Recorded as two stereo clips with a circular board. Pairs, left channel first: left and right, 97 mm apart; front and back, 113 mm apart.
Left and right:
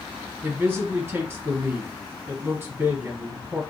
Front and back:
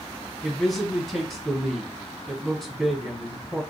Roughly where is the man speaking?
Right.